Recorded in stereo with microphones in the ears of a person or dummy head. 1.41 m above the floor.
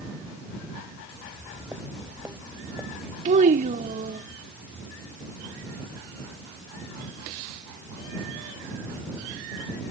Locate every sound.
1.2 s footsteps: 10° right (ahead or behind); by 3.1 s 5° right (ahead or behind)
3.2 s a child speaking: 45° right (ahead or behind)